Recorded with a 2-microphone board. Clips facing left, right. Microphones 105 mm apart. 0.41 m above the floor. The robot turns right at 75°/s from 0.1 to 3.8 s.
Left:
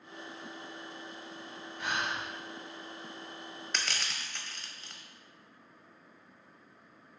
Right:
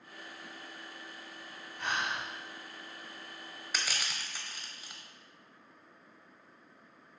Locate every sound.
1.8 s breathing: straight ahead, 1.3 m; by 2.2 s 35° left, 1.3 m
3.7 s crushing: 5° right (ahead or behind), 0.6 m; by 5.0 s 10° right (ahead or behind), 0.6 m